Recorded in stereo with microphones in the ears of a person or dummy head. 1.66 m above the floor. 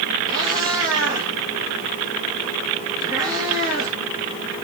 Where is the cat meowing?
20° right (ahead or behind), 6.5 m.